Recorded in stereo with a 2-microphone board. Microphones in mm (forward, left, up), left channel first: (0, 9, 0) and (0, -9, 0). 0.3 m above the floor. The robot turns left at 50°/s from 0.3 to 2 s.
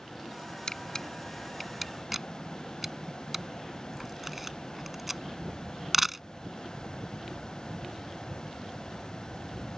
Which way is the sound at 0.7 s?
45° left (ahead or behind).